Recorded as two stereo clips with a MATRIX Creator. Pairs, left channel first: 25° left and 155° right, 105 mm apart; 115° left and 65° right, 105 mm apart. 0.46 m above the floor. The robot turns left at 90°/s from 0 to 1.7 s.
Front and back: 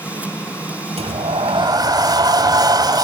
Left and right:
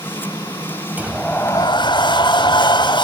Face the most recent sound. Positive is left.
turn(degrees=155)